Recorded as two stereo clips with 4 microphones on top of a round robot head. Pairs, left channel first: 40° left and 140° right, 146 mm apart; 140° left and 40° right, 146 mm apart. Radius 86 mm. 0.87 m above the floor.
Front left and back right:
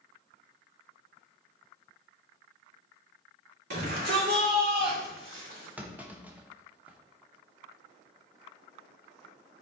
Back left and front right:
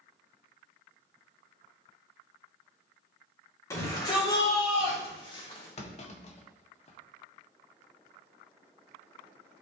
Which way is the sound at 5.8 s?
140° left.